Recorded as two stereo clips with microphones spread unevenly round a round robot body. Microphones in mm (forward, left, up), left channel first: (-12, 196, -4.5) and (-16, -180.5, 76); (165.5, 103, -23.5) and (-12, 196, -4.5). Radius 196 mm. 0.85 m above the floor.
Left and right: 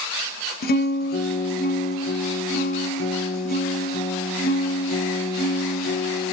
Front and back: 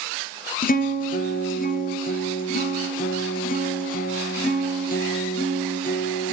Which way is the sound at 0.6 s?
20° left.